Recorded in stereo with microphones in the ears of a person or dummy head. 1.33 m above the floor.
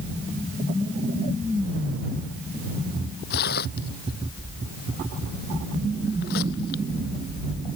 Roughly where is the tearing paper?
Left.